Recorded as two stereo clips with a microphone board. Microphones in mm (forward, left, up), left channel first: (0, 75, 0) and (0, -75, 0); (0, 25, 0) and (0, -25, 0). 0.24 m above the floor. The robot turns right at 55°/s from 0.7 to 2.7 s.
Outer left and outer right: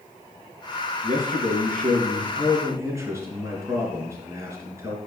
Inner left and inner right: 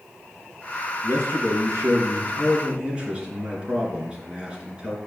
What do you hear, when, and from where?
1.0 s a man speaking: 115° right, 3 m; by 5.0 s 20° right, 3 m